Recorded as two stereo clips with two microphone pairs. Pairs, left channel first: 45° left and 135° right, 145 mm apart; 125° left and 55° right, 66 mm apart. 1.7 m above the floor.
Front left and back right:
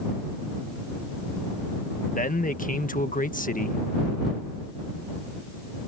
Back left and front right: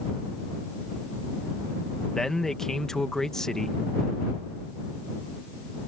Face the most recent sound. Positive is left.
turn(degrees=45)